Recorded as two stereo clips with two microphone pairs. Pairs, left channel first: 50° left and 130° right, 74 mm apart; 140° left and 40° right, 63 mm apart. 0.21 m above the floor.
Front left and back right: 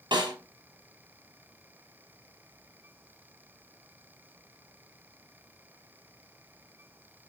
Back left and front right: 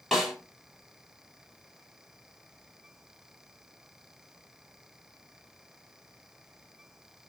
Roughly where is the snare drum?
Behind right.